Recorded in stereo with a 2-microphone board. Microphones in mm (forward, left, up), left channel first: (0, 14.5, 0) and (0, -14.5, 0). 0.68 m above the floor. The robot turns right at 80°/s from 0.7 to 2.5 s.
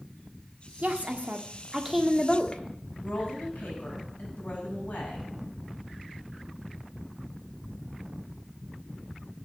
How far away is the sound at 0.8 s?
About 1.3 m.